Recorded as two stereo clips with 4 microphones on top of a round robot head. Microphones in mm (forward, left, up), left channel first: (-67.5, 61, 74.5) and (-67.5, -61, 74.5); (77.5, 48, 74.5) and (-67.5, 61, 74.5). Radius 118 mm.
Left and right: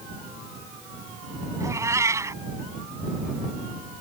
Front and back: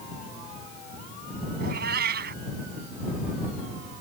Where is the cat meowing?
155° right.